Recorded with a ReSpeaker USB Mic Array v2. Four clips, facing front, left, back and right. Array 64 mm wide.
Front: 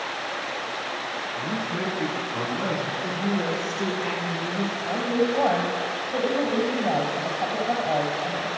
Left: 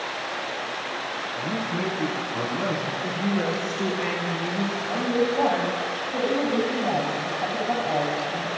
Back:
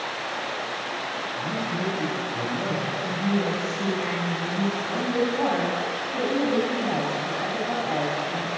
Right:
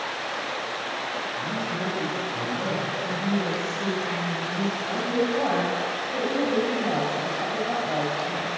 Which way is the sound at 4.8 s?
5° left.